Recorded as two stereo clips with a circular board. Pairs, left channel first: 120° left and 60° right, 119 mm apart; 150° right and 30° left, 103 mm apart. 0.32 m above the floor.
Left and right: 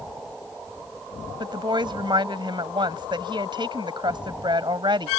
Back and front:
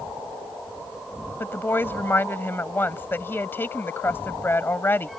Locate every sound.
1.4 s a woman speaking: 90° right